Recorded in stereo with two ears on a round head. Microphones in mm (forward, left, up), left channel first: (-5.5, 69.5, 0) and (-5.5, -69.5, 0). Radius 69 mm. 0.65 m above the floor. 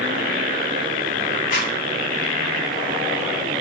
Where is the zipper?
50° left (ahead or behind), 1.9 m.